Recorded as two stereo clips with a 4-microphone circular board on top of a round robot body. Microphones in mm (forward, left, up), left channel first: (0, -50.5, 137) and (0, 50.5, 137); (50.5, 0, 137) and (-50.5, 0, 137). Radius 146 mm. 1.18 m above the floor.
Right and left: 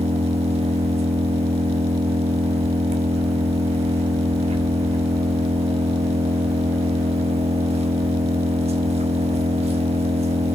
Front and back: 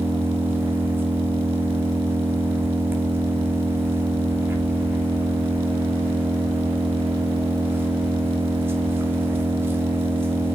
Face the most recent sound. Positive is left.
turn(degrees=110)